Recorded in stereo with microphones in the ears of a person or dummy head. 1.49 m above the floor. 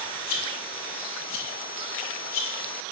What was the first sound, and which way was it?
A rattle, 45° left (ahead or behind).